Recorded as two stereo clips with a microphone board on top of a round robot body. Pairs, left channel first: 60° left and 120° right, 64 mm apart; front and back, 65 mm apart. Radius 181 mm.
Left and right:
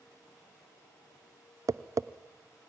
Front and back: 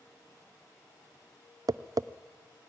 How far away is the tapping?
About 0.5 m.